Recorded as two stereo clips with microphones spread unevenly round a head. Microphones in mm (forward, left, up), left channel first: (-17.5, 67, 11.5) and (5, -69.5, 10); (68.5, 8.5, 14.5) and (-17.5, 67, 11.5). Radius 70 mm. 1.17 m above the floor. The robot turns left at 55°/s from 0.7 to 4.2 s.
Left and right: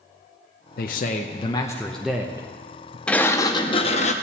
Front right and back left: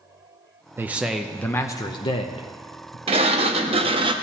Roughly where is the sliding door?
Behind.